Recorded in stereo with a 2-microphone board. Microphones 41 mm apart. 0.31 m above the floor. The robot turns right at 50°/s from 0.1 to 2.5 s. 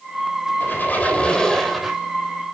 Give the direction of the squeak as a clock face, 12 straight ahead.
8 o'clock.